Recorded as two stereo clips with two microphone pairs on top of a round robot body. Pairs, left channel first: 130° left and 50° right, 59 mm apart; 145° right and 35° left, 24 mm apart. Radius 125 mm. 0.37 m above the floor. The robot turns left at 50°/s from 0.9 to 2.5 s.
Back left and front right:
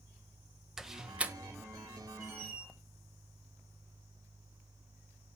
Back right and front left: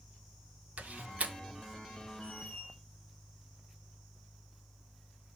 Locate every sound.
0.8 s a door slam: 30° left, 1.5 m; by 1.3 s 5° left, 1.5 m
2.2 s a squeak: 105° right, 7 m; by 2.7 s 120° right, 7 m